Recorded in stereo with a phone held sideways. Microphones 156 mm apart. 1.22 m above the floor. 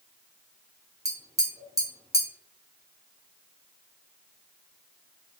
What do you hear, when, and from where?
1.1 s tapping: 20° right (ahead or behind), 0.9 m